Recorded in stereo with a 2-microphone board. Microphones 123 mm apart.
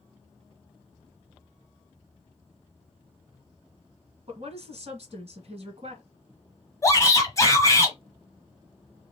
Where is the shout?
25° left (ahead or behind), 1.2 m.